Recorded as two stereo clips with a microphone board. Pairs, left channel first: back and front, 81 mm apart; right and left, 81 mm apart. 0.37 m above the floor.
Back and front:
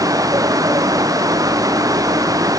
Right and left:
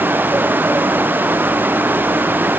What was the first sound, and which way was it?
Only background noise.